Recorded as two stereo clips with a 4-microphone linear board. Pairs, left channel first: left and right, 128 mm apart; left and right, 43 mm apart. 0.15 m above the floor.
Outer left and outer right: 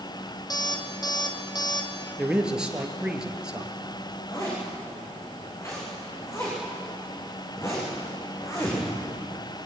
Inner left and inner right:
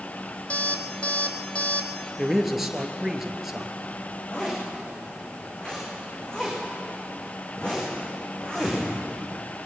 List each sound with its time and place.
0.5 s an alarm clock: 30° left (ahead or behind), 2.5 m
2.2 s a man speaking: 5° right (ahead or behind), 3 m
4.3 s a zipper: 20° left (ahead or behind), 8 m